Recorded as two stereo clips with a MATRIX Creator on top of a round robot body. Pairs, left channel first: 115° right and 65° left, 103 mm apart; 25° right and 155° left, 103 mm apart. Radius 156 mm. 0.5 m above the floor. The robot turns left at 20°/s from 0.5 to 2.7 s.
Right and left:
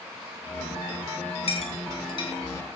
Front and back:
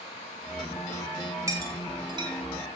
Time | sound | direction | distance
1.5 | a clink | 140° right | 2.5 m